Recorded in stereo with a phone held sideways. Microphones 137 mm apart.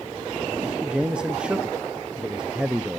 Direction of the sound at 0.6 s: 5° right (ahead or behind).